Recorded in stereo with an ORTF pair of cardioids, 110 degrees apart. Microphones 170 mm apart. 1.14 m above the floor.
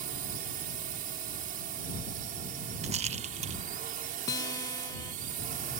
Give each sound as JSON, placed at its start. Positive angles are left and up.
{"t": 0.0, "sound": "a drone", "azimuth_deg": -60}
{"t": 2.8, "sound": "a rattle", "azimuth_deg": -45}
{"t": 4.3, "sound": "a guitar", "azimuth_deg": 20}